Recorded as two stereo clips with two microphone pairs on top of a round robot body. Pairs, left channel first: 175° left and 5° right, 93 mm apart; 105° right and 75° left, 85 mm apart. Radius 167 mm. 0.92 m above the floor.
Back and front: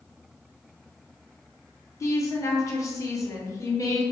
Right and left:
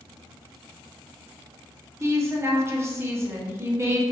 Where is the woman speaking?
135° left, 0.8 m.